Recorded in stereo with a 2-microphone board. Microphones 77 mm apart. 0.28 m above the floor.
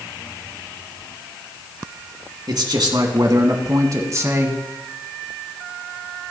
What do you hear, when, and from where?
2.5 s a man speaking: 65° right (ahead or behind), 2.5 m; by 4.6 s 30° right (ahead or behind), 2 m